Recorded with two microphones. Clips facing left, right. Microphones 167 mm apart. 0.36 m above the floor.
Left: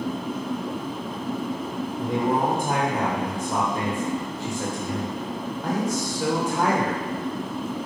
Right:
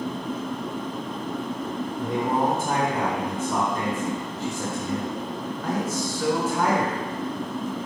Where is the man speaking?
15° left (ahead or behind), 1.0 m.